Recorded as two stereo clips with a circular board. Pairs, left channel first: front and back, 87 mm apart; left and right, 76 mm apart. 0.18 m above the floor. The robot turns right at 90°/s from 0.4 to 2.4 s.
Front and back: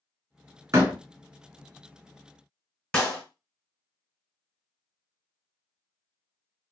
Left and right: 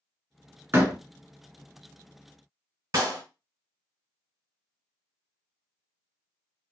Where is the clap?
65° right, 2 m.